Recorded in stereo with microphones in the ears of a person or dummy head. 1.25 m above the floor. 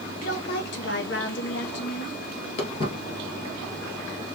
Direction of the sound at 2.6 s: 40° left (ahead or behind).